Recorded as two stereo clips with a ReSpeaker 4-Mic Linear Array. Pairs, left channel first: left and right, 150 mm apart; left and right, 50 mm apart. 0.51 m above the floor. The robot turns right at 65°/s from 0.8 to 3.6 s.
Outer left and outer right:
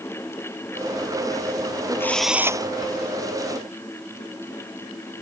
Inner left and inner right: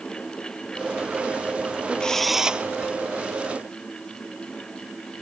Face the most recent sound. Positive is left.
turn(degrees=-90)